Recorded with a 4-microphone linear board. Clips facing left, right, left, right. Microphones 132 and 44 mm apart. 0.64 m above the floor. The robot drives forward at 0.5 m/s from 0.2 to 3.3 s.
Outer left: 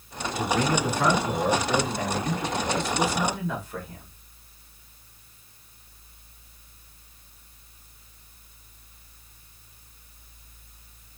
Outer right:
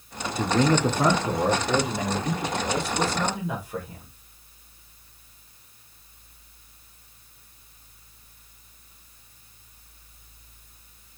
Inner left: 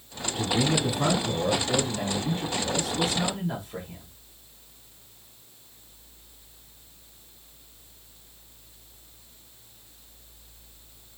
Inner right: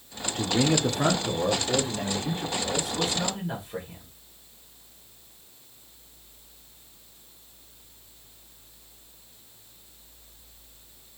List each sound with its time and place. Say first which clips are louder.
0.3 s a man speaking: outer right 3 dB, inner right 1 dB; 40° right (ahead or behind), 0.7 m; by 4.1 s 15° right (ahead or behind), 1.9 m